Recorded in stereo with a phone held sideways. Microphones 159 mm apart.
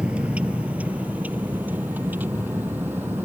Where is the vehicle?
5° right (ahead or behind); by 3.2 s 15° right (ahead or behind).